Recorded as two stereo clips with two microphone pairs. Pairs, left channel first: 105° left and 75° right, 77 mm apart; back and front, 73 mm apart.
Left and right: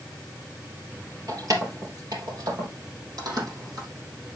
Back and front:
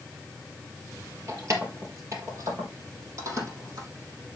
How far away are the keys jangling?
About 2.5 m.